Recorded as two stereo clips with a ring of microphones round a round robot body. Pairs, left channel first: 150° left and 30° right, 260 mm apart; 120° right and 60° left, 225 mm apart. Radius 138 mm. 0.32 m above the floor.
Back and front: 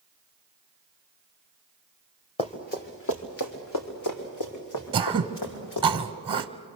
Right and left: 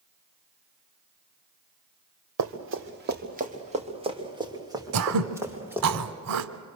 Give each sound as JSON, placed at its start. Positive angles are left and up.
{"t": 2.4, "sound": "running footsteps", "azimuth_deg": 80, "distance_m": 2.0}
{"t": 4.9, "sound": "throat clearing", "azimuth_deg": 40, "distance_m": 0.8}